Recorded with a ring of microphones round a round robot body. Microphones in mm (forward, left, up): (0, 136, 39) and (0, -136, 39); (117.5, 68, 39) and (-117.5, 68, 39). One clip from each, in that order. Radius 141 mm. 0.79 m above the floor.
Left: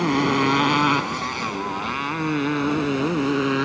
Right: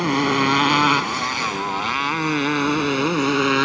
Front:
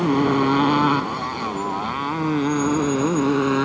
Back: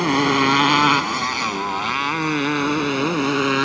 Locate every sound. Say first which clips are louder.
0.0 s a motorcycle: right 1 dB, back 2 dB; 165° right; by 3.7 s 140° right